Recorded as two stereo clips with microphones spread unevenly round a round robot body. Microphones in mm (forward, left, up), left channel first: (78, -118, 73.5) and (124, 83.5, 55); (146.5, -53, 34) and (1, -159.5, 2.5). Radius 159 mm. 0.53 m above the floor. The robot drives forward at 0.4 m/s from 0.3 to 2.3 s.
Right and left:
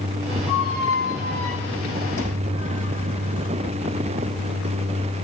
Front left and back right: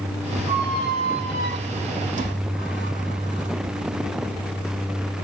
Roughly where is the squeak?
Behind right.